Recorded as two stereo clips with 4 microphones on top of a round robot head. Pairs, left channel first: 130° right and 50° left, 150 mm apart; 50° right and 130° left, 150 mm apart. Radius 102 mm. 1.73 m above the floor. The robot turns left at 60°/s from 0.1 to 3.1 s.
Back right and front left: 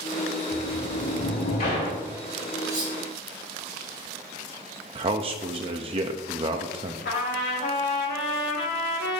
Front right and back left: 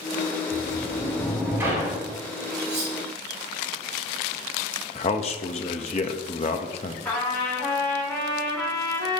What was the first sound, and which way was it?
A sliding door, 90° right.